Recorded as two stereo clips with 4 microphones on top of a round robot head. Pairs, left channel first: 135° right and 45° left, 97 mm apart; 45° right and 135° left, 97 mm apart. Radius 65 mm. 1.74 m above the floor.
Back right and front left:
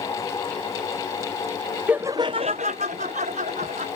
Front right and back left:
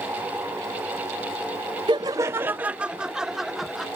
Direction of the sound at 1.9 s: 120° left.